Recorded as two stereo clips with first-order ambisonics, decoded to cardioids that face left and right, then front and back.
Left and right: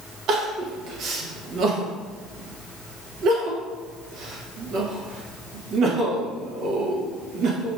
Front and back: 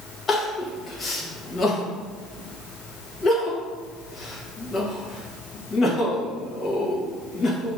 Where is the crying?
60° right, 0.8 m.